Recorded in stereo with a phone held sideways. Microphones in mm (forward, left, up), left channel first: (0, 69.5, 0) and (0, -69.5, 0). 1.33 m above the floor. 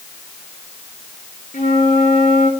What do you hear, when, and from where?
1.5 s a flute: 75° left (ahead or behind), 3 m